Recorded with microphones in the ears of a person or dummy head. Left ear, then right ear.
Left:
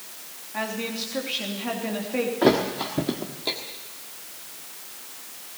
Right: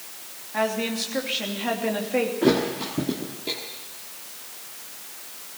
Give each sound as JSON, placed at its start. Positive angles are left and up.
{"t": 0.5, "sound": "a woman speaking", "side_deg": -10, "distance_m": 3.0}
{"t": 2.4, "sound": "a thud", "side_deg": 15, "distance_m": 1.4}